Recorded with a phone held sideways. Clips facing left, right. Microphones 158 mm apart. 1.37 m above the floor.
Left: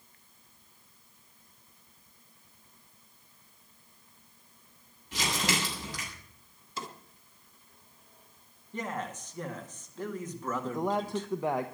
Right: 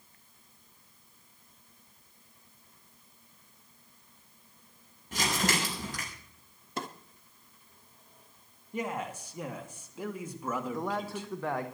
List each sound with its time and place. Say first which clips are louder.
5.1 s crumpling: right 1 dB; 50° right (ahead or behind), 7 m
6.8 s a drawer: right 3 dB; 60° right (ahead or behind), 1.4 m
8.7 s a man speaking: right 1 dB; 10° right (ahead or behind), 2 m
10.6 s a man speaking: left 3 dB; 15° left (ahead or behind), 1.0 m